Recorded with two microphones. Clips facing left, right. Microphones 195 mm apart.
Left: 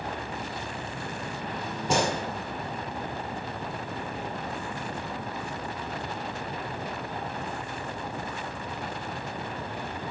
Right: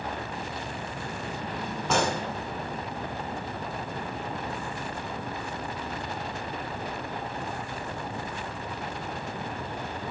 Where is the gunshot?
15° left (ahead or behind), 1.9 m.